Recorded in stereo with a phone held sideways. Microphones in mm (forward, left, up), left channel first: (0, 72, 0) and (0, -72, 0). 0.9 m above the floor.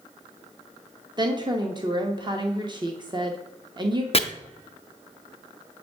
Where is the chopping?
45° left (ahead or behind), 0.5 m.